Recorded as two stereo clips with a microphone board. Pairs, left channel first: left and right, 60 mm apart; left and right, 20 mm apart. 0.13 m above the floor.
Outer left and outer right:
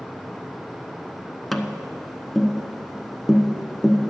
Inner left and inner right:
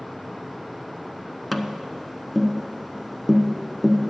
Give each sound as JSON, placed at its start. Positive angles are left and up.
{"t": 1.5, "sound": "tapping", "side_deg": 5, "distance_m": 0.8}